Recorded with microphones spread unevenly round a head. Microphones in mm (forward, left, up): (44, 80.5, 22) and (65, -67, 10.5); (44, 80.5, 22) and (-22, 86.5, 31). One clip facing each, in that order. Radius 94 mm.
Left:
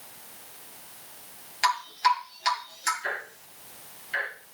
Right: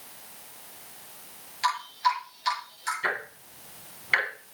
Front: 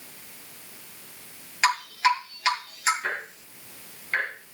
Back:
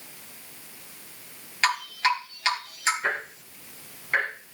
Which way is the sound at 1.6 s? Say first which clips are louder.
Left 2 dB, front 2 dB; 75° left.